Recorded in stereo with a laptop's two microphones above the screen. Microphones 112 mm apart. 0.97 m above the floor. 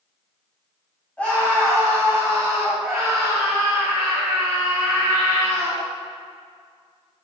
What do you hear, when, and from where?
1.2 s a scream: 15° left (ahead or behind), 6 m; by 5.8 s 20° right (ahead or behind), 10.5 m